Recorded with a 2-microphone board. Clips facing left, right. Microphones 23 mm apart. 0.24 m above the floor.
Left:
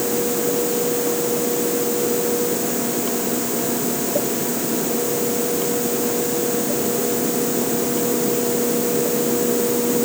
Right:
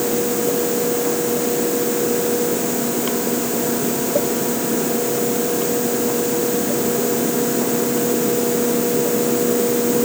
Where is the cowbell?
No cowbell in this recording.